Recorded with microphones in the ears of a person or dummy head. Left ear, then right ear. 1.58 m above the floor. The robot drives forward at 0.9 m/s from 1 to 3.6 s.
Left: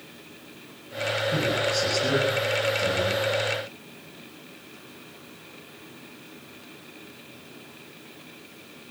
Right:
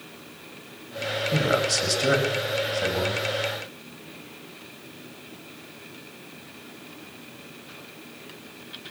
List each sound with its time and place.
1.3 s a man speaking: 55° right (ahead or behind), 7.5 m; by 3.2 s 45° right (ahead or behind), 8.5 m